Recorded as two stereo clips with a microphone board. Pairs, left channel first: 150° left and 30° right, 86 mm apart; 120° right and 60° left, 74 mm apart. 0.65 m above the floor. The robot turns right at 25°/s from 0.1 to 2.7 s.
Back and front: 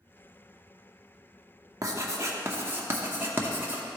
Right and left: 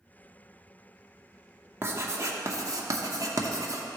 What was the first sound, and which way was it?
Writing, 10° left.